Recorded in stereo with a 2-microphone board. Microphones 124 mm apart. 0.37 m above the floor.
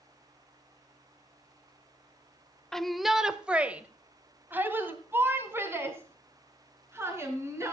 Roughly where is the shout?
Centre.